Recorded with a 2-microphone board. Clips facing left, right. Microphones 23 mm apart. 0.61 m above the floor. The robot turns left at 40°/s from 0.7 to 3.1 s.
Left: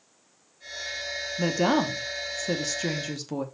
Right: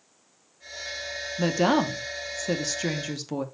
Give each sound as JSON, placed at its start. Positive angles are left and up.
{"t": 1.4, "sound": "a woman speaking", "side_deg": -15, "distance_m": 0.9}